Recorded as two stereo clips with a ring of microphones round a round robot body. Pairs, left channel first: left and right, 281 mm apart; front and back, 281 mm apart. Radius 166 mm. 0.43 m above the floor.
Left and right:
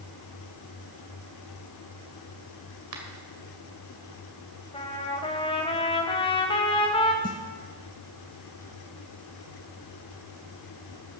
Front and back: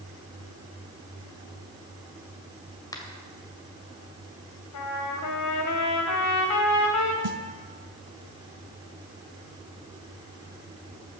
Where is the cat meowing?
No cat meowing in this recording.